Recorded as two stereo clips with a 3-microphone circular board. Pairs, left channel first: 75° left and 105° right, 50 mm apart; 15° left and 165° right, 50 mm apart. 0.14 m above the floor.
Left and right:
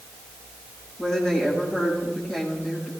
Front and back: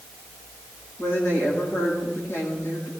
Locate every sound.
1.0 s a woman speaking: 5° right, 7.5 m